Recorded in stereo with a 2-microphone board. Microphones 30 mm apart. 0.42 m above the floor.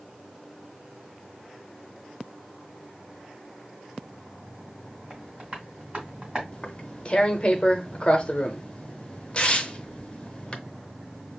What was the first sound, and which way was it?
Tapping, 35° right (ahead or behind).